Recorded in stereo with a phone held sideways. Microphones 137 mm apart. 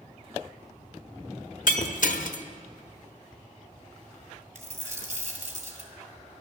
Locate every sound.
1.7 s breaking glass: 70° left (ahead or behind), 0.9 m
4.5 s a dropped coin: 60° right (ahead or behind), 2.5 m